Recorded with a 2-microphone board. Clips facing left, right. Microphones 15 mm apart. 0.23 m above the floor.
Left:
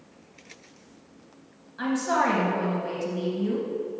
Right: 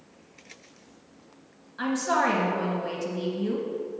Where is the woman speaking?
5° right (ahead or behind), 1.5 m.